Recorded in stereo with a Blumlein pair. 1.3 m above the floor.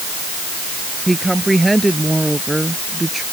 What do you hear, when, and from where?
1.1 s a woman speaking: 5° right